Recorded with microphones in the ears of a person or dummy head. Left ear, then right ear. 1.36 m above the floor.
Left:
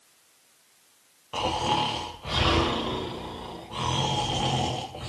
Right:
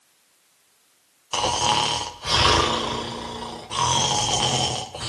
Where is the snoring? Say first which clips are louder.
Right 5 dB; 75° right (ahead or behind), 2.5 m.